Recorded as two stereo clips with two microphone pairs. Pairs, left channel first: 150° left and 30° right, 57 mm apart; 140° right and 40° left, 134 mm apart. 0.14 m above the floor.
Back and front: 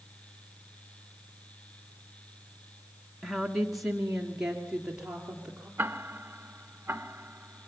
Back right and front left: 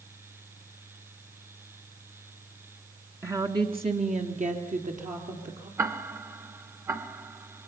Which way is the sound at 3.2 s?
75° left.